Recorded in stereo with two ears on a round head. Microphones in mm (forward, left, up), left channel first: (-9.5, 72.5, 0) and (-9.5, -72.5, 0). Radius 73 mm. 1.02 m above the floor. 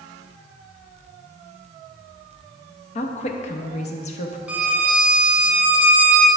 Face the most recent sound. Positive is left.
turn(degrees=-10)  # may be behind; listen again after turning